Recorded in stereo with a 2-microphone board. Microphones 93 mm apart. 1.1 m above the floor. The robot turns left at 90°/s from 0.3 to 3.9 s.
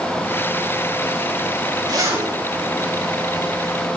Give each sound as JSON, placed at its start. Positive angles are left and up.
{"t": 1.9, "sound": "a zipper", "azimuth_deg": -130, "distance_m": 2.5}